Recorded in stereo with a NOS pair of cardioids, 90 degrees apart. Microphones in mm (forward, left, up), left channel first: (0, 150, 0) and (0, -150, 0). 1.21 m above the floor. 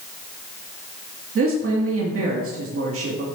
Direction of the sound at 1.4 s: 45° right.